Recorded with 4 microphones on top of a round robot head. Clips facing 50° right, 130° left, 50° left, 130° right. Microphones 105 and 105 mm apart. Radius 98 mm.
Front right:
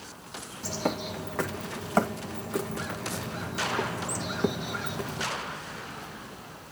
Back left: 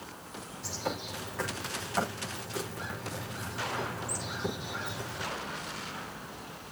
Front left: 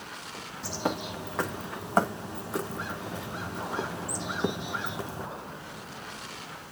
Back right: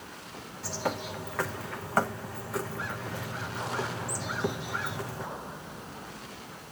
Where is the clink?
I don't hear a clink.